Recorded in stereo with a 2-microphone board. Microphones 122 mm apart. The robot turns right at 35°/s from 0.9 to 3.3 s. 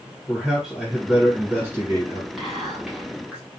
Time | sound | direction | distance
0.3 | a man speaking | 5° right (ahead or behind) | 1.4 m
2.4 | whispering | centre (ahead or behind) | 1.2 m